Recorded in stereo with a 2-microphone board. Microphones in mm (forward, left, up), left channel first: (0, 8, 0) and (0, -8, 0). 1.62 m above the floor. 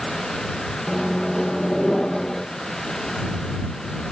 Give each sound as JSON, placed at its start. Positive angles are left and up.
{"t": 0.9, "sound": "a microwave", "side_deg": 35}